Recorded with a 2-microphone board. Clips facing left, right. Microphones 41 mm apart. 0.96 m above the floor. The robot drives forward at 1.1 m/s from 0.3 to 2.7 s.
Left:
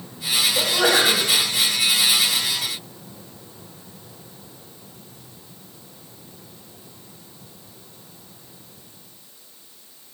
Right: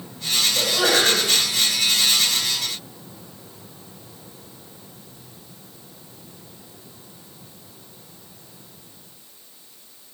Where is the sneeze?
10° left (ahead or behind), 5 m.